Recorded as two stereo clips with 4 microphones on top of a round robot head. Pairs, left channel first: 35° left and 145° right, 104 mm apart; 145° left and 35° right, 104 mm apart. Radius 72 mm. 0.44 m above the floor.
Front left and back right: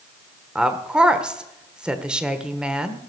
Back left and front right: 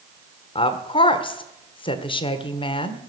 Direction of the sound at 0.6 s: 135° left.